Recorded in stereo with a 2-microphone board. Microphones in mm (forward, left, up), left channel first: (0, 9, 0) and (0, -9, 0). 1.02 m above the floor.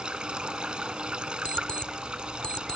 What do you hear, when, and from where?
0.0 s running water: 60° right (ahead or behind)
1.4 s an alarm clock: 70° left (ahead or behind)